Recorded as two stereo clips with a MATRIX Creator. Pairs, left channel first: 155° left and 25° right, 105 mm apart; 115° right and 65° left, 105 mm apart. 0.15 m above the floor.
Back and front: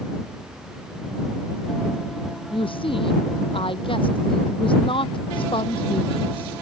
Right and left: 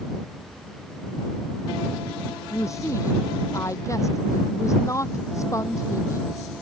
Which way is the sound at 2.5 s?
170° right.